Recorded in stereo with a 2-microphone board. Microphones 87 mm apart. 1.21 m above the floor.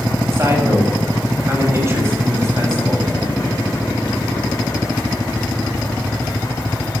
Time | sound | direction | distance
0.3 | a man speaking | 30° right (ahead or behind) | 8 m